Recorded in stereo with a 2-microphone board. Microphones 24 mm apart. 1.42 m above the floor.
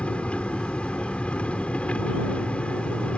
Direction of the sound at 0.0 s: 65° left (ahead or behind).